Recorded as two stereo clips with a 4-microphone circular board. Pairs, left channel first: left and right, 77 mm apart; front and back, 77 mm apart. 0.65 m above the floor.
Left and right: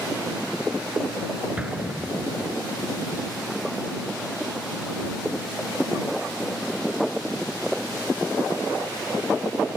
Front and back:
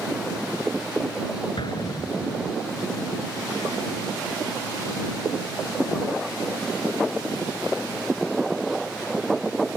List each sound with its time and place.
1.6 s an explosion: 15° right